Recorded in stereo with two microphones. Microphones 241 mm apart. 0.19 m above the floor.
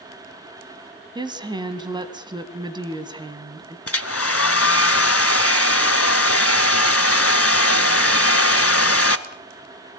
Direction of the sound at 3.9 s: 70° left (ahead or behind).